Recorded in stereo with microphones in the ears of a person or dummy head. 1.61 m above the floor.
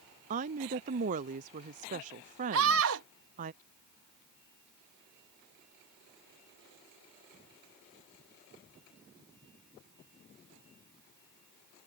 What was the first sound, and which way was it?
A woman speaking, 40° right (ahead or behind).